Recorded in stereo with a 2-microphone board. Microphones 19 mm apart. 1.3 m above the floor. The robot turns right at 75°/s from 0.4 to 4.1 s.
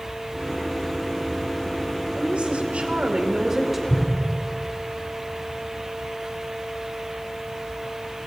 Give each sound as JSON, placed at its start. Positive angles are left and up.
{"t": 2.1, "sound": "a woman speaking", "azimuth_deg": -130, "distance_m": 2.0}
{"t": 3.9, "sound": "an explosion", "side_deg": -85, "distance_m": 4.5}